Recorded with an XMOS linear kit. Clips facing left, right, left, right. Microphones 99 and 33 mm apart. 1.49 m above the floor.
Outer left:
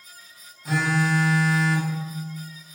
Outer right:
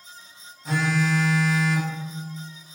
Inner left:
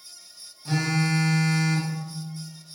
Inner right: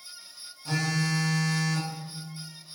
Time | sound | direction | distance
0.7 | a phone buzzing | 5° left (ahead or behind) | 0.6 m